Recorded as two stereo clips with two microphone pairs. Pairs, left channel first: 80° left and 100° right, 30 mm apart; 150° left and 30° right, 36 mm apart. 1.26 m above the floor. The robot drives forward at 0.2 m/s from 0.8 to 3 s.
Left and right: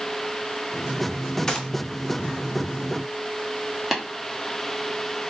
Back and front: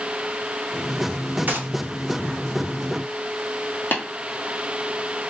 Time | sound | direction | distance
1.5 | a gunshot | 5° left | 0.6 m
3.9 | tapping | 175° left | 0.8 m